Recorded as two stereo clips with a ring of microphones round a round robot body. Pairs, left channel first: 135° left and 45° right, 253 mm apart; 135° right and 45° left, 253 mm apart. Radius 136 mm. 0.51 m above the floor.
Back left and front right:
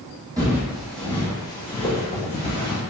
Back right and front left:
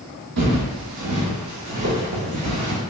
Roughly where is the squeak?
No squeak in this recording.